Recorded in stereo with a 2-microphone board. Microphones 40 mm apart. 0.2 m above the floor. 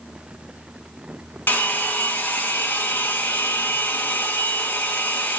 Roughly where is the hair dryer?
Left.